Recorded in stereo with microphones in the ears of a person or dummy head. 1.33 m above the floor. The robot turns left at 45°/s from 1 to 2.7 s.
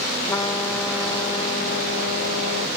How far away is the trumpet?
About 1.4 m.